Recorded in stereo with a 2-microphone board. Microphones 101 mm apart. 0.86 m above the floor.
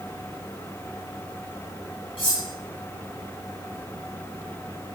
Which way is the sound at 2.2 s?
60° left (ahead or behind).